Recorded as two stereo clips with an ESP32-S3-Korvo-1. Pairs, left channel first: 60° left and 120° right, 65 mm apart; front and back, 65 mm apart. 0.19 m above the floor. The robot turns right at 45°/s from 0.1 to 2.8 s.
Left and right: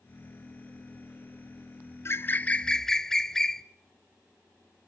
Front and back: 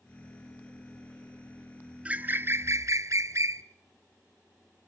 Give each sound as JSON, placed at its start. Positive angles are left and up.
{"t": 2.0, "sound": "a bird", "azimuth_deg": 110, "distance_m": 0.7}